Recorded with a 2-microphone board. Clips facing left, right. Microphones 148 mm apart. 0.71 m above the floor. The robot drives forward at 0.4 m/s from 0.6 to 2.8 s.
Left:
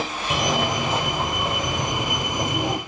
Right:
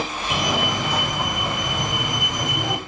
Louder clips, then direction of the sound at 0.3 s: Left 1 dB; 25° left (ahead or behind).